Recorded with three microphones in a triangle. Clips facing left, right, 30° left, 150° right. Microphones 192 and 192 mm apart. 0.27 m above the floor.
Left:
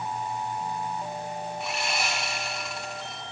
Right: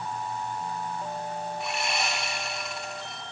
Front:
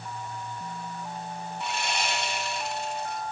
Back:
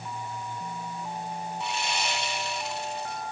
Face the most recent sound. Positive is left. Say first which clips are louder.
# even, front 2 dB
turn(degrees=0)